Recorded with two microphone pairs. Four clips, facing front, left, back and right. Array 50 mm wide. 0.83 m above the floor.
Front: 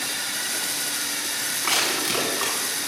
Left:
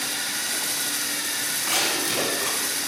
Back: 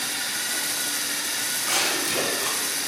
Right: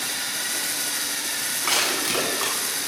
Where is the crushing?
35° right, 6.5 m.